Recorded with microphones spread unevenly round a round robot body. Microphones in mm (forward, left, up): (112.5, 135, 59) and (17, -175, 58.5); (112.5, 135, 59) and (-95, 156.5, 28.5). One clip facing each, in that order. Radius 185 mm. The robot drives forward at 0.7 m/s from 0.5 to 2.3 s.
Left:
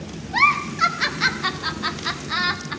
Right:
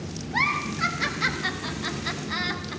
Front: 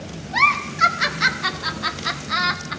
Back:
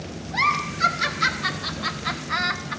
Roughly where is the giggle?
Ahead.